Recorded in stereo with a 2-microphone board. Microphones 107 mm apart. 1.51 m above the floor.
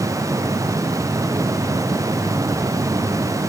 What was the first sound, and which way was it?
Only background noise.